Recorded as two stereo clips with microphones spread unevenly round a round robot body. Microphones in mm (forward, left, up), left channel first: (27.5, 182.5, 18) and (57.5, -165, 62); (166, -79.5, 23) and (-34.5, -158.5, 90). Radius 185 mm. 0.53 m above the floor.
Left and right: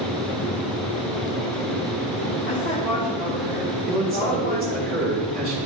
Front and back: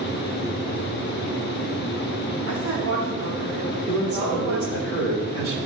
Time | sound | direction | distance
2.5 | a woman speaking | 175° left | 5 m
3.9 | a man speaking | 150° right | 5.5 m